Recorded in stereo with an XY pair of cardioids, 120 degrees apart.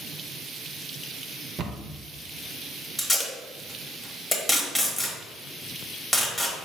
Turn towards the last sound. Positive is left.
turn(degrees=10)